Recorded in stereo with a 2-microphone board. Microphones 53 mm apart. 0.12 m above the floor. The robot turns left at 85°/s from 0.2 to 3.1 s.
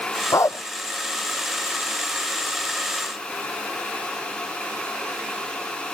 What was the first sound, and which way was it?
A dog barking, 75° left (ahead or behind).